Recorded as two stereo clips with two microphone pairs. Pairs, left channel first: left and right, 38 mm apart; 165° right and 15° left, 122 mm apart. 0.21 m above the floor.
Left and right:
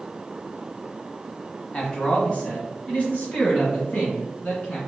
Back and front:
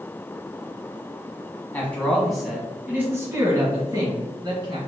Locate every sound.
1.7 s a man speaking: 135° left, 1.3 m; by 4.8 s 55° left, 2 m